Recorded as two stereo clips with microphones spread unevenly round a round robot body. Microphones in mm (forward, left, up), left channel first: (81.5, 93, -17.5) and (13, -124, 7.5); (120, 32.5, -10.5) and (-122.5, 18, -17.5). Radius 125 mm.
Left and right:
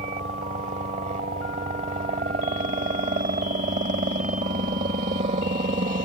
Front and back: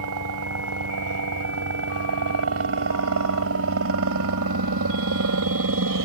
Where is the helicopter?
170° right.